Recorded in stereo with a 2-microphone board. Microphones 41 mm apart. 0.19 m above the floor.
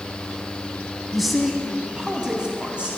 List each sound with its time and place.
1.1 s a man speaking: centre (ahead or behind), 1.1 m; by 2.9 s 25° right (ahead or behind), 1.2 m